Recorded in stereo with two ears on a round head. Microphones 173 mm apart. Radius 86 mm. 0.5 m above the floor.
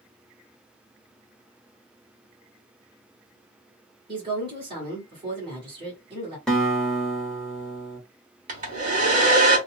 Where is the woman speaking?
25° right (ahead or behind), 1.8 m.